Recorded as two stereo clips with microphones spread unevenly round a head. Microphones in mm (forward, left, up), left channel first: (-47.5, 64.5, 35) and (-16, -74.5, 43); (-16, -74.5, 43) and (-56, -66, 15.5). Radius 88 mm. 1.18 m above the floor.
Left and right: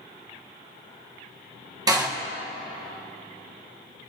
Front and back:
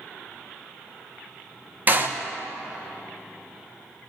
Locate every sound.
1.9 s a door slam: 140° right, 1.3 m